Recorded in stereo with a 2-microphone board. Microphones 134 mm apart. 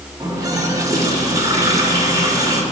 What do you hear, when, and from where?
0.2 s a running tap: 30° right (ahead or behind), 2.5 m